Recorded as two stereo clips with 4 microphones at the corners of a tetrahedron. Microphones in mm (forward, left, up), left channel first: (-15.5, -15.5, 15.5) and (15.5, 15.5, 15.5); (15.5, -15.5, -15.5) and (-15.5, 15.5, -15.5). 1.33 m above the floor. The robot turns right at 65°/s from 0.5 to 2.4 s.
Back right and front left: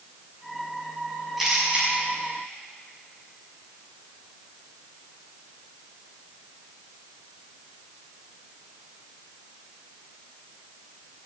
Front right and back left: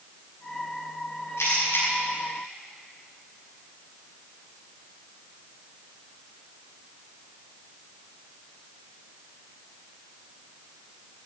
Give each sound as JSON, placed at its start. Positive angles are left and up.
{"t": 1.4, "sound": "a camera shutter", "azimuth_deg": -40, "distance_m": 6.0}